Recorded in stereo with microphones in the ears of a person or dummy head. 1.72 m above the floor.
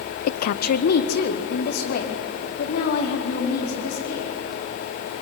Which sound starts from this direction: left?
A woman speaking, at 0.3 s.